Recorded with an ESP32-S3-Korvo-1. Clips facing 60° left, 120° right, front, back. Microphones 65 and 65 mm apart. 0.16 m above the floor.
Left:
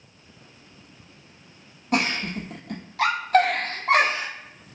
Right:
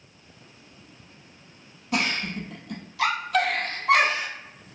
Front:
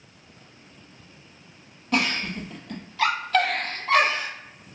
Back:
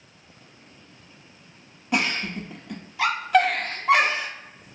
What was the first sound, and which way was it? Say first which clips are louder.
A giggle: left 2 dB, even; 100° left.